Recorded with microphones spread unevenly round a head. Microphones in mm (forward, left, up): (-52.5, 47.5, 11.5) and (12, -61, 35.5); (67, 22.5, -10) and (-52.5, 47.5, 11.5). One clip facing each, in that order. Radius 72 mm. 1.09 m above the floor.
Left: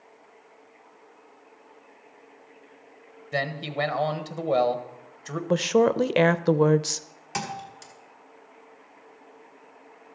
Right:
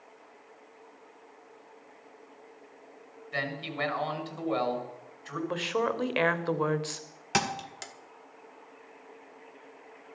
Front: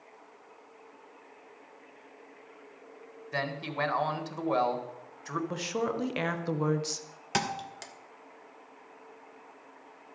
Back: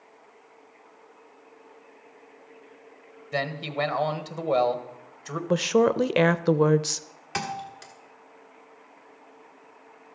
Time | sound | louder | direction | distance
3.3 | a man speaking | left 6 dB, back 5 dB | 100° left | 1.4 m
5.5 | a woman speaking | left 10 dB, back 14 dB | 145° left | 0.5 m
7.3 | a thud | right 2 dB, even | 65° right | 0.9 m